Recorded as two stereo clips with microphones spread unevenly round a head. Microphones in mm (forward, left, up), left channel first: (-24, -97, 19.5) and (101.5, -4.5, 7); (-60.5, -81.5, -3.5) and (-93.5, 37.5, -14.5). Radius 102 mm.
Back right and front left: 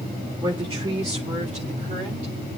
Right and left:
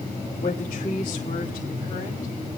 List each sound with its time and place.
0.4 s a woman speaking: 20° right, 1.9 m; by 2.3 s straight ahead, 3 m